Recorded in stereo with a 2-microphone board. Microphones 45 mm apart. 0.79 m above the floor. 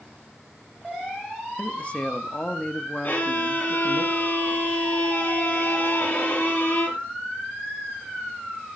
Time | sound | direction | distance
1.6 | a man speaking | 30° left (ahead or behind) | 1.1 m
3.0 | a violin | 45° left (ahead or behind) | 3.5 m